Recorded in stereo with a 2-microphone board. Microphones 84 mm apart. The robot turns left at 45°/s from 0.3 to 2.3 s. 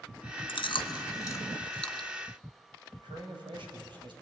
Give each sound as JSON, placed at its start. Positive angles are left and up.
{"t": 0.5, "sound": "chewing", "side_deg": 75, "distance_m": 0.7}
{"t": 3.0, "sound": "a man speaking", "side_deg": -65, "distance_m": 4.0}